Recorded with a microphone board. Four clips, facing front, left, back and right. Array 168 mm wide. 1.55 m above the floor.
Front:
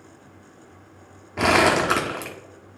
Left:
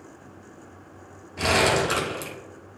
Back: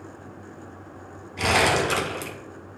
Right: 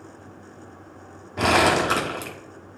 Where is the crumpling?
35° right, 1.2 m.